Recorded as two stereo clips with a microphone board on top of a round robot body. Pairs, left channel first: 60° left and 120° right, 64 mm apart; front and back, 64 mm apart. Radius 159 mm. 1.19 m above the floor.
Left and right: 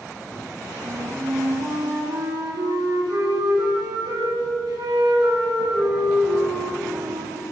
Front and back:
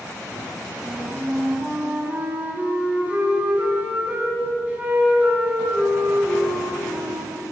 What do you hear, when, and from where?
0.8 s a flute: 110° right, 3 m